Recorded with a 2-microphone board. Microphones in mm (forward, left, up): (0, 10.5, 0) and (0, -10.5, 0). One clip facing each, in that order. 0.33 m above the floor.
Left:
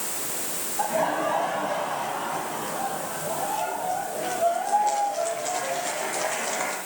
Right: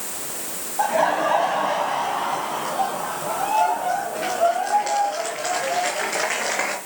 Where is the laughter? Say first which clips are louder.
Right 5 dB; 35° right (ahead or behind), 1.9 m; by 6.8 s 75° right (ahead or behind), 5 m.